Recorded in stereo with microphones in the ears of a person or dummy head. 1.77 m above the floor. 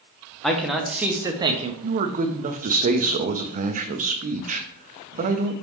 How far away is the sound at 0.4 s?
About 1.1 m.